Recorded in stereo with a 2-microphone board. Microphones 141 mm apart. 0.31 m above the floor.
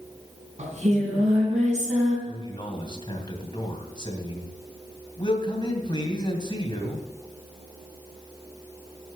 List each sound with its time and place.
0.6 s singing: 60° right (ahead or behind), 3.5 m
2.3 s a man speaking: 35° left (ahead or behind), 2.5 m